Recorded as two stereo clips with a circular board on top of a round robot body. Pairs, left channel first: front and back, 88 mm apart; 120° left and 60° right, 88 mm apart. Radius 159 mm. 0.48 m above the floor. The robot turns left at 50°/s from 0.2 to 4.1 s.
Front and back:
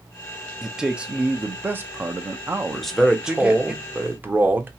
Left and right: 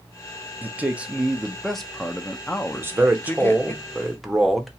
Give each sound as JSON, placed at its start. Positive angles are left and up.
{"t": 0.6, "sound": "a man speaking", "azimuth_deg": -95, "distance_m": 0.8}
{"t": 2.7, "sound": "a man speaking", "azimuth_deg": -80, "distance_m": 0.9}